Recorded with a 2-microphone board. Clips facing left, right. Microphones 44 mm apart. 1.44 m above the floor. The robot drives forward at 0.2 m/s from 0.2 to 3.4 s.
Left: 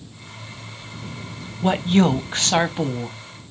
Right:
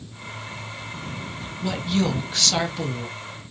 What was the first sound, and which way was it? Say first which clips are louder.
A woman speaking: left 6 dB; 45° left (ahead or behind).